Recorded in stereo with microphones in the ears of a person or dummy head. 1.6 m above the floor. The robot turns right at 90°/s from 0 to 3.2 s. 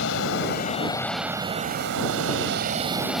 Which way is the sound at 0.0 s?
75° left.